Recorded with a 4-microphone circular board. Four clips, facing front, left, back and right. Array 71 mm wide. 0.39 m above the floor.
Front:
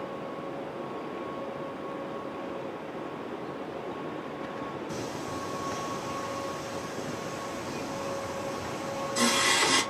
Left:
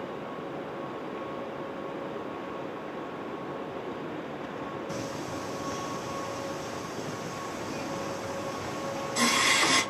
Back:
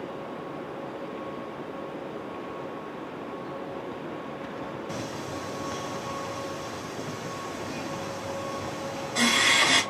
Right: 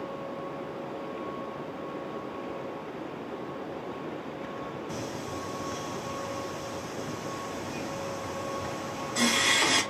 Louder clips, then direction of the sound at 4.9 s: Left 1 dB, back 1 dB; 165° right.